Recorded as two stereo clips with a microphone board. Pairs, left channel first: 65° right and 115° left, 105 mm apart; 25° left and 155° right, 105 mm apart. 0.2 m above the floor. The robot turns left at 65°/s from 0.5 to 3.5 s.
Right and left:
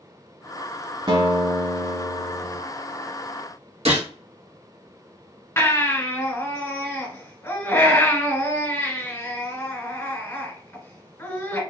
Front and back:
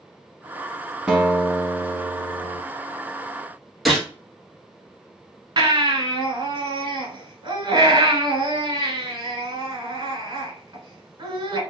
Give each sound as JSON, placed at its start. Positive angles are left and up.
{"t": 1.1, "sound": "a guitar", "azimuth_deg": 125, "distance_m": 0.9}
{"t": 3.9, "sound": "a gunshot", "azimuth_deg": 110, "distance_m": 1.3}
{"t": 5.6, "sound": "a baby crying", "azimuth_deg": -130, "distance_m": 1.2}